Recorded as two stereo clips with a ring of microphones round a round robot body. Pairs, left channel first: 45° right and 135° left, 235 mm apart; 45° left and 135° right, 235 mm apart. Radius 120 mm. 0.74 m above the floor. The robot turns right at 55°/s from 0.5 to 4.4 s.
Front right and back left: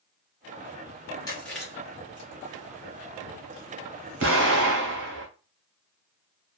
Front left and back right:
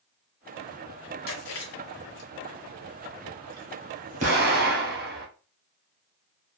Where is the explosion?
165° left, 1.8 m; by 5.3 s 175° left, 1.8 m.